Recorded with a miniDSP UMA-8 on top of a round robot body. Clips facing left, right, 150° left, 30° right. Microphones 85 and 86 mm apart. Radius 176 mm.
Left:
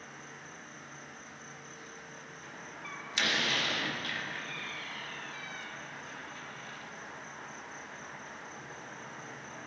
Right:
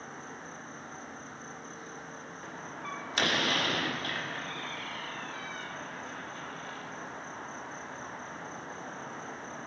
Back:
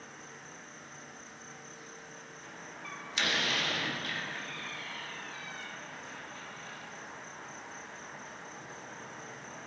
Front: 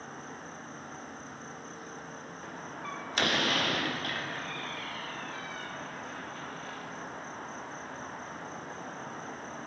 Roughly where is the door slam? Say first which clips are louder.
Right 6 dB, front 6 dB; ahead right.